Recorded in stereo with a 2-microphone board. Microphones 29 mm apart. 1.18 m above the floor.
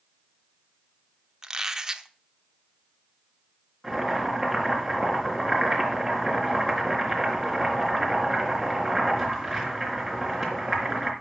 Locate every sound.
1.4 s a squeak: 20° right (ahead or behind), 0.9 m
3.8 s boiling: centre (ahead or behind), 4 m